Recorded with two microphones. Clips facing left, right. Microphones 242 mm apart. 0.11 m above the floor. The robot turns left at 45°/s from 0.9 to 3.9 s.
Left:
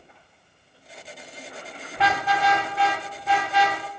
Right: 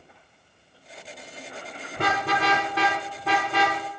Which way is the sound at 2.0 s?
45° right (ahead or behind).